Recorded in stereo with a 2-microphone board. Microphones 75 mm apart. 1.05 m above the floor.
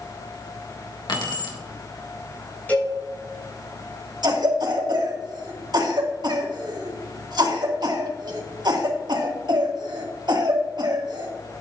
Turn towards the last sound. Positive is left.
turn(degrees=-65)  # may be behind; listen again after turning